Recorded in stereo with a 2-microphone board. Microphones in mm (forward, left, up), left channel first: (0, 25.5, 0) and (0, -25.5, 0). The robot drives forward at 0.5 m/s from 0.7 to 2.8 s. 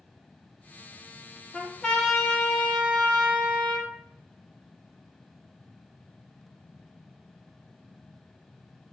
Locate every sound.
1.5 s a trumpet: 15° left (ahead or behind), 0.8 m; by 3.9 s 10° left (ahead or behind), 1.4 m